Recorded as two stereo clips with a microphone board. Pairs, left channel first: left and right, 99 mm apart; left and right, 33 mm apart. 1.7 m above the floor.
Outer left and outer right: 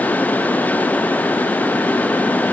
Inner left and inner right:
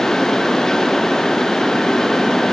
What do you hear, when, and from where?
Only background noise.